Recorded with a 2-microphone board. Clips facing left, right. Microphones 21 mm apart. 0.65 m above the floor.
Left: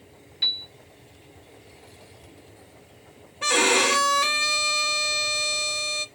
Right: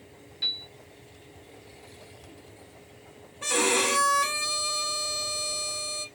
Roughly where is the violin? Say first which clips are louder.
Left 5 dB; left.